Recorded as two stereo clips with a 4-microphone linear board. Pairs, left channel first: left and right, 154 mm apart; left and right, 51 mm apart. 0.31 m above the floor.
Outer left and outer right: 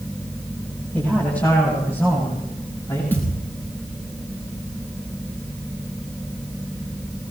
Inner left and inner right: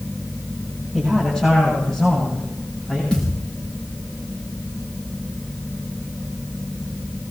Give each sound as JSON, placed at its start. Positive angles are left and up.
{"t": 0.9, "sound": "a man speaking", "side_deg": 10, "distance_m": 10.0}
{"t": 3.1, "sound": "a thud", "side_deg": 15, "distance_m": 6.5}